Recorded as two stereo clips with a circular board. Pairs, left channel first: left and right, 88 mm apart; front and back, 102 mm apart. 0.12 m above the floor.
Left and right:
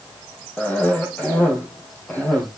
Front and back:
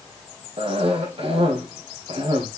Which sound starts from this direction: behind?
A cough, at 0.6 s.